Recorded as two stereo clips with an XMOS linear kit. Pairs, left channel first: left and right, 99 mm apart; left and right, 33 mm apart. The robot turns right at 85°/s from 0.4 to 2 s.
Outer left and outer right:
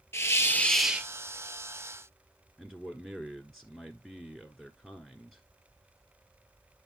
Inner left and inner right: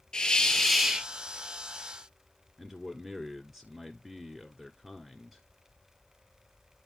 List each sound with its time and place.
0.1 s a hiss: 145° left, 0.7 m; by 1.1 s 155° right, 0.7 m
2.6 s a man speaking: 5° left (ahead or behind), 1.1 m